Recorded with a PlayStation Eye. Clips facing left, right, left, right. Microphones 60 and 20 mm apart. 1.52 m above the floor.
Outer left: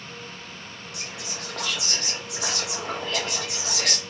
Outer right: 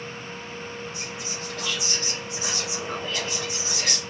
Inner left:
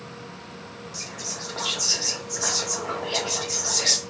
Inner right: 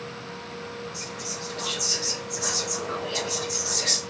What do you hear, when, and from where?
0.9 s whispering: 75° left (ahead or behind), 1.2 m